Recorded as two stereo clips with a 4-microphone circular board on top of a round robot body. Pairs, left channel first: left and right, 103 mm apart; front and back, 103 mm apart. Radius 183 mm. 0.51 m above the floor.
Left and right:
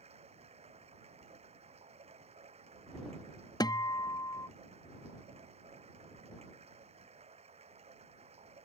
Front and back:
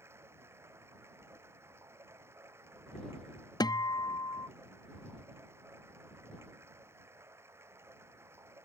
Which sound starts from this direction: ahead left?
A guitar, at 3.6 s.